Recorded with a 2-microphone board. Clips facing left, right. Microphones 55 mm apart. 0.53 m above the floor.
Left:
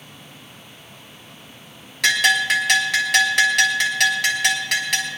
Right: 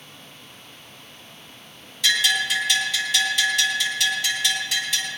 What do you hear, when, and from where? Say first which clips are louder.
2.0 s a bell: left 4 dB; 65° left (ahead or behind), 2.5 m